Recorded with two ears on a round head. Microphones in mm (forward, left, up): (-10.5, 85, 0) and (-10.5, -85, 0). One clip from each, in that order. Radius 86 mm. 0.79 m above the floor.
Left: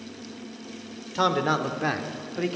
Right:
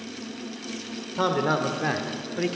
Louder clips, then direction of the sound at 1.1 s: Left 1 dB; 25° left (ahead or behind).